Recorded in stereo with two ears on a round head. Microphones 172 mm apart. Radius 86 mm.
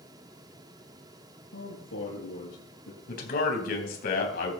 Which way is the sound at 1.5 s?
75° left (ahead or behind).